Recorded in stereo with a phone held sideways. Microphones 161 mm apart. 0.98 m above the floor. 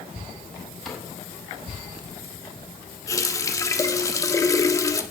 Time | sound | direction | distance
0.8 | a cupboard door | 5° left (ahead or behind) | 6.5 m
3.1 | a running tap | 20° left (ahead or behind) | 1.3 m